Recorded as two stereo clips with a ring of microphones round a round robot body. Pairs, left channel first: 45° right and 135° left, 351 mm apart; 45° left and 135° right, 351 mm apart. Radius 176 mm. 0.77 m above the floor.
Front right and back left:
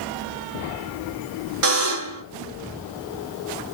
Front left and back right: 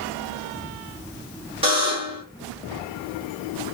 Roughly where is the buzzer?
Behind left.